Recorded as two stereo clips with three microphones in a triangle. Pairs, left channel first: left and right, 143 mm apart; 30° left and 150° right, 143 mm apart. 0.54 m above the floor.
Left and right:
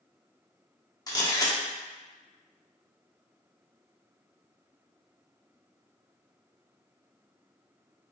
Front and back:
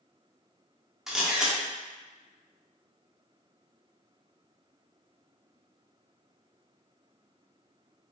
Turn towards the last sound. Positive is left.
turn(degrees=125)